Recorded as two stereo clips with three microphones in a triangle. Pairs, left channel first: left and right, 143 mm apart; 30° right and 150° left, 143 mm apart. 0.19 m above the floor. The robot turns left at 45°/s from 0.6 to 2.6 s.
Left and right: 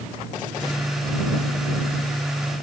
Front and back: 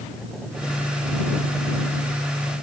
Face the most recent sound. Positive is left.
No sound to turn to.